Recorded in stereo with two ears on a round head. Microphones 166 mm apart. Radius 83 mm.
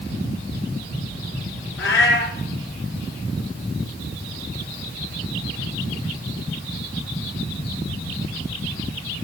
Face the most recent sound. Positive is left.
turn(degrees=70)  # may be behind; listen again after turning